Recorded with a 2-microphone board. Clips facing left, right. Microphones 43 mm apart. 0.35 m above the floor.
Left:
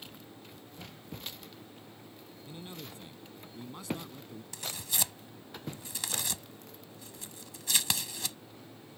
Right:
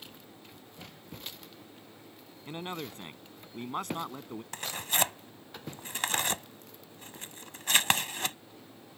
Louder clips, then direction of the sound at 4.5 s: Right 7 dB; 45° right (ahead or behind).